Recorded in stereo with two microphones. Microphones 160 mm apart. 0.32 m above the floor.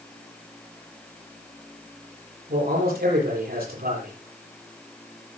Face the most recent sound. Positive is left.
turn(degrees=-70)  # may be behind; listen again after turning